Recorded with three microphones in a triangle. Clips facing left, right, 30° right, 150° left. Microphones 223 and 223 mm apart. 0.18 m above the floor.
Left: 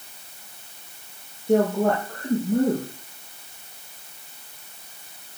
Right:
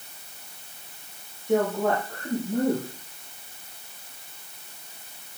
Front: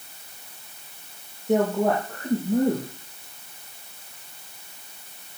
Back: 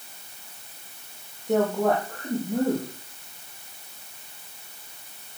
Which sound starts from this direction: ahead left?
A woman speaking, at 1.5 s.